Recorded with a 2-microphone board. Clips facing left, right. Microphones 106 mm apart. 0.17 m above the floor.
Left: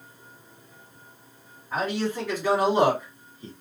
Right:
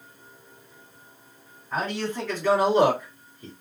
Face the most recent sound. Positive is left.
turn(degrees=20)  # may be behind; listen again after turning